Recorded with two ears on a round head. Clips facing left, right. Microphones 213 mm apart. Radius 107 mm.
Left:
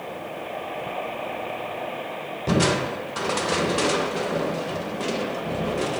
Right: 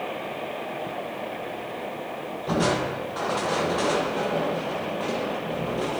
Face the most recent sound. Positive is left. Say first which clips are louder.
# left 2 dB
turn(degrees=35)  # may be behind; listen again after turning